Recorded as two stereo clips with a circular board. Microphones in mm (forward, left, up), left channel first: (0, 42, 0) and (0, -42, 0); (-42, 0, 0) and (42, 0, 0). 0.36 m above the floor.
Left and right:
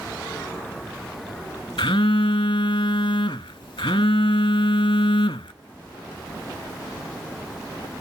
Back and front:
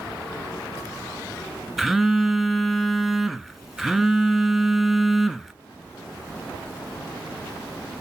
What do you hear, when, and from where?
1.8 s a phone buzzing: 85° left, 0.7 m